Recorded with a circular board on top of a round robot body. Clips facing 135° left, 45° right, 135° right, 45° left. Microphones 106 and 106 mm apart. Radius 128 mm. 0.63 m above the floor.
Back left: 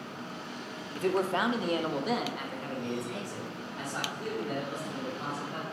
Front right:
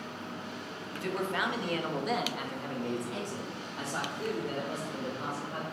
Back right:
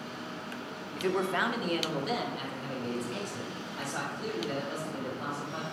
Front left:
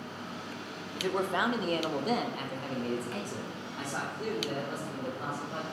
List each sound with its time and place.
1.0 s a man speaking: 125° left, 0.9 m; by 5.6 s 5° left, 3 m